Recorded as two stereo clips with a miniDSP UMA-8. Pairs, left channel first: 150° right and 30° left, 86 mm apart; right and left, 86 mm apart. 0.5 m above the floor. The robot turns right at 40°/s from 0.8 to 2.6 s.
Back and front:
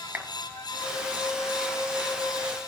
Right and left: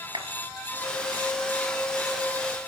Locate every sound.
0.1 s a clap: 95° left, 4 m